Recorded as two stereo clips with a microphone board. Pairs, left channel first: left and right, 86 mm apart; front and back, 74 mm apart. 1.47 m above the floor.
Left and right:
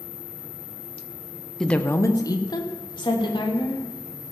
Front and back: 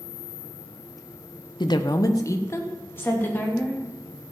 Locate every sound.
1.6 s a woman speaking: 5° left, 0.9 m; by 3.8 s 65° left, 3.5 m